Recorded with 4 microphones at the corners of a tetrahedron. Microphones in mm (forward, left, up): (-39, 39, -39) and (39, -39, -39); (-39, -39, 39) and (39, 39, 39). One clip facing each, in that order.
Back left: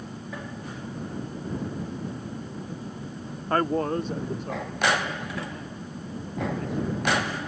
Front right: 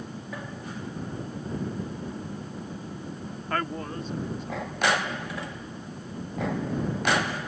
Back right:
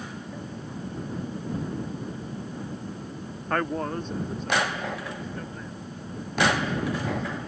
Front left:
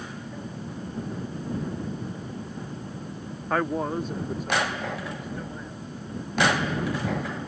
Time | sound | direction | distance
3.5 | a man speaking | 125° left | ?